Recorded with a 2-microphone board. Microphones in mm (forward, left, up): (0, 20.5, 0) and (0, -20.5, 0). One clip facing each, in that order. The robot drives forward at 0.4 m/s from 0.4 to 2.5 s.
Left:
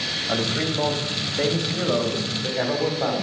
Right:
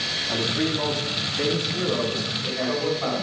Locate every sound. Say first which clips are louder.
0.3 s a man speaking: even; 75° left (ahead or behind), 2.5 m; by 3.2 s 60° left (ahead or behind), 3 m